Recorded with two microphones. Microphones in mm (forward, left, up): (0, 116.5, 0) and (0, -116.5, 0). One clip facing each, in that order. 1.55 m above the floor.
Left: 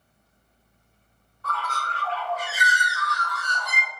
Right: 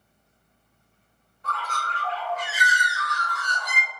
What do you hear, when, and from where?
1.4 s a bird: 20° right (ahead or behind), 0.7 m